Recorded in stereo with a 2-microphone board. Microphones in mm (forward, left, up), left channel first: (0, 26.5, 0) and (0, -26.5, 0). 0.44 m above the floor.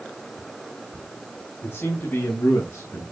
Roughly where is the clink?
I don't hear a clink.